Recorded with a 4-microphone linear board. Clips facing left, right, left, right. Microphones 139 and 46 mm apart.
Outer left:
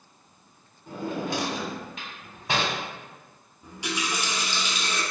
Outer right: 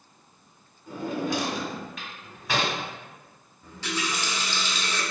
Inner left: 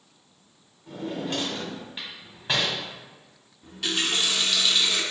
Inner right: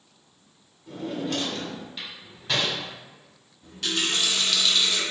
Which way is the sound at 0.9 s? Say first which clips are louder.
Outer right 1 dB, inner right 1 dB; 25° left (ahead or behind).